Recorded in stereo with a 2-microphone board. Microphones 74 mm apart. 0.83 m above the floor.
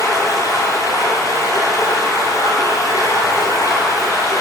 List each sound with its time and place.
0.0 s running water: 50° left (ahead or behind), 7 m